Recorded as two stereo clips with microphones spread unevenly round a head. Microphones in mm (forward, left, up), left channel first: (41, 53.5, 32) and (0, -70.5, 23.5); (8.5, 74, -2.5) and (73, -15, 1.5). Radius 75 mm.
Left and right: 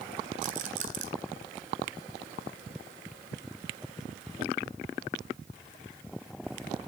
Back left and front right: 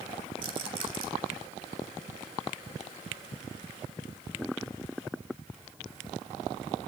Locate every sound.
0.4 s a rattle: 90° right, 1.8 m